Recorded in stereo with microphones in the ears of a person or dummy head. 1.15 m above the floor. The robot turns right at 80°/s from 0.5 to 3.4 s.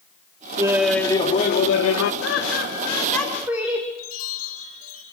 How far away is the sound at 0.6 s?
About 1.8 m.